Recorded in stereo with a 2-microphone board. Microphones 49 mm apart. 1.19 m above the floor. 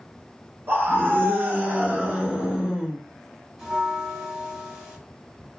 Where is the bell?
10° right (ahead or behind), 1.5 m.